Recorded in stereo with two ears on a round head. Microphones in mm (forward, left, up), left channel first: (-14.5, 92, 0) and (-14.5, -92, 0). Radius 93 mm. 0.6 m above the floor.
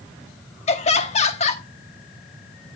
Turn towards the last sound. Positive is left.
turn(degrees=35)  # may be behind; listen again after turning